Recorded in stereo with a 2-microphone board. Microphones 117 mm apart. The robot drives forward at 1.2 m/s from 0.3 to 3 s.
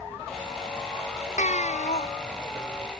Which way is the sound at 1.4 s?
75° left (ahead or behind).